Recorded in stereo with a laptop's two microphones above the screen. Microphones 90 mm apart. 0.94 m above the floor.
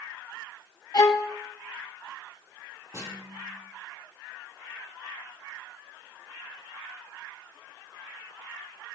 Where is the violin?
45° left (ahead or behind), 1.3 m.